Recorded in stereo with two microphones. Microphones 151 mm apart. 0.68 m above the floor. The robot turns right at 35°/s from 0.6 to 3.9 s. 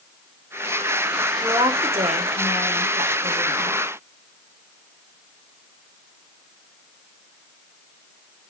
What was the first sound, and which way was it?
A woman speaking, 155° right.